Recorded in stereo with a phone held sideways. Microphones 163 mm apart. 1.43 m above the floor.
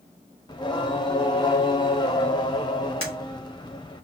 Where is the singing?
25° left (ahead or behind), 0.8 m.